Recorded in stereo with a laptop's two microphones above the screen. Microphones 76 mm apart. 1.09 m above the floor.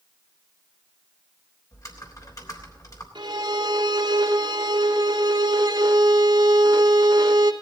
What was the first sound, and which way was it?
Typing on a keyboard, 50° left (ahead or behind).